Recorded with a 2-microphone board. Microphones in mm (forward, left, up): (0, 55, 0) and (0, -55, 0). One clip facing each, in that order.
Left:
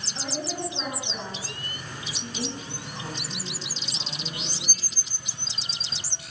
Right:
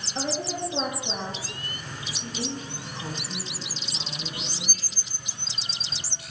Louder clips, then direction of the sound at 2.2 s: Right 1 dB; 10° left (ahead or behind).